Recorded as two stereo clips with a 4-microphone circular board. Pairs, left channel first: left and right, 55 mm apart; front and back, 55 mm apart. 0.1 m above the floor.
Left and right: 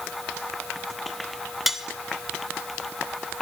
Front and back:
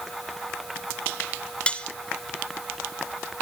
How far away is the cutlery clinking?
About 0.8 m.